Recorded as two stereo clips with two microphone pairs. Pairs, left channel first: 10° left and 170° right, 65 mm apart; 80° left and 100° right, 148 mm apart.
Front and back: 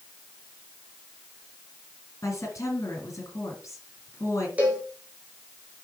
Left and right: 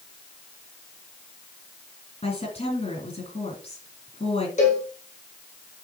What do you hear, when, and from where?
2.2 s a woman speaking: 40° left, 3.5 m
4.6 s a cowbell: 120° left, 2.5 m